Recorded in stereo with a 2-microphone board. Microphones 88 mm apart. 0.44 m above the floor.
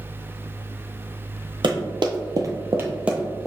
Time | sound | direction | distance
1.6 | running footsteps | 60° right (ahead or behind) | 0.9 m